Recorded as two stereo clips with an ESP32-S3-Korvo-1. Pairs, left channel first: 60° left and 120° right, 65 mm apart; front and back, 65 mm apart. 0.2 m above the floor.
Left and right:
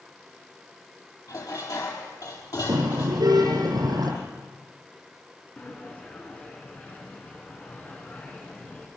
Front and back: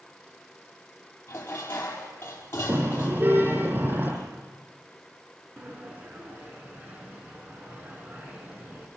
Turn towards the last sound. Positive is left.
turn(degrees=120)